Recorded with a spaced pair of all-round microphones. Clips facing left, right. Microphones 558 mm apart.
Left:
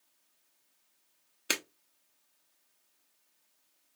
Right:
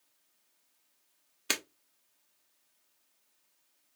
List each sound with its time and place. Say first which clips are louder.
1.5 s breaking glass: left 1 dB; 25° right (ahead or behind), 0.7 m